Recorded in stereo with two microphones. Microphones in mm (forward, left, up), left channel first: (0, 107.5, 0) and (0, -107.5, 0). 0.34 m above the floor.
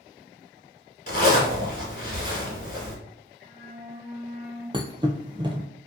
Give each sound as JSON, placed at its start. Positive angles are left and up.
{"t": 1.1, "sound": "a zipper", "side_deg": 45, "distance_m": 1.2}
{"t": 3.4, "sound": "a flute", "side_deg": -40, "distance_m": 1.2}
{"t": 4.7, "sound": "a thud", "side_deg": -25, "distance_m": 0.5}